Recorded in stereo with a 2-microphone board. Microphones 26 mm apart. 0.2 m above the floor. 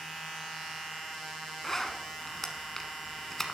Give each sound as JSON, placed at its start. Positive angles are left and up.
{"t": 1.6, "sound": "a zipper", "side_deg": 10, "distance_m": 0.9}